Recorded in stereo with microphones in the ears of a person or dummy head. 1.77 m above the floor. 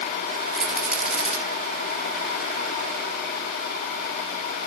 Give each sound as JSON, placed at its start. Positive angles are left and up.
{"t": 0.5, "sound": "a rattle", "side_deg": -10, "distance_m": 1.5}